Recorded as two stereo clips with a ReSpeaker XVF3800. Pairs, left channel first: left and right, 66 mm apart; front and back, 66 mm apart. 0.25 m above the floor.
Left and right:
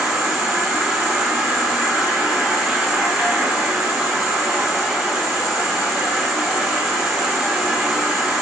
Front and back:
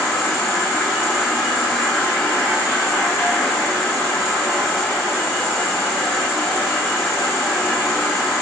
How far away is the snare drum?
No snare drum in this recording.